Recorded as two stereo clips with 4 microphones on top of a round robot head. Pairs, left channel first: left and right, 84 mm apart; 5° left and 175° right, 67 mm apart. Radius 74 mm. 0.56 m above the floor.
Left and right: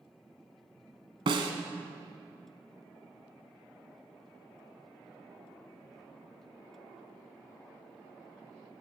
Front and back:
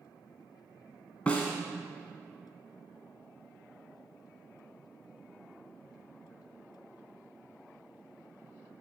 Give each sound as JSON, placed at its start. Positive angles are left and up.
{"t": 1.3, "sound": "a snare drum", "azimuth_deg": -70, "distance_m": 1.0}